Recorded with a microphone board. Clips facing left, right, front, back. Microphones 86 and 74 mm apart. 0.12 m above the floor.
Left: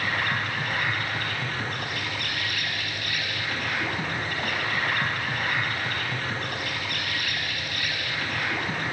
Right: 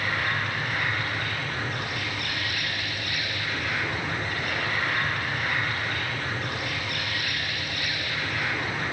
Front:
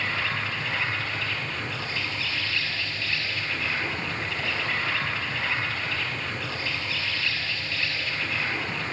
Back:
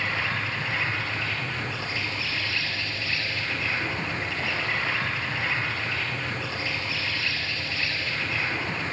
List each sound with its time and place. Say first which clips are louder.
0.0 s an insect: even, even; 115° left, 4 m